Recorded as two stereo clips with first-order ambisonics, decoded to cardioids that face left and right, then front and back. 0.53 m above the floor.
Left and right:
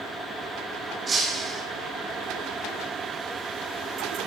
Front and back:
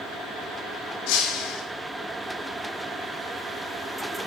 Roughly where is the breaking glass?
Ahead.